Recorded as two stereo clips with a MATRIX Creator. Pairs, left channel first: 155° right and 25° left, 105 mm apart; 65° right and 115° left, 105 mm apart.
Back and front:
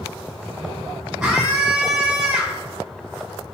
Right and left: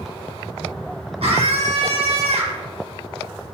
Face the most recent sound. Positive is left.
turn(degrees=110)